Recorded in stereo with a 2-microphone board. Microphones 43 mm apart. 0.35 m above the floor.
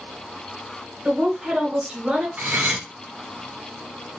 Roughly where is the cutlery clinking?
Right.